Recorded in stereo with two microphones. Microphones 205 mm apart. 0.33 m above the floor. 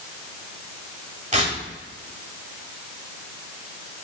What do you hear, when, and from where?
1.3 s tearing paper: 35° right (ahead or behind), 1.7 m